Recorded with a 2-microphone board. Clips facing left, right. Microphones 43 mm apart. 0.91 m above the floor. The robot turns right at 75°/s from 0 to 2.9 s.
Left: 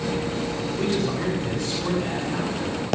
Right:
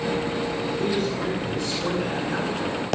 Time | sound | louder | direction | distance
0.8 | a man speaking | left 2 dB | 75° left | 6.5 m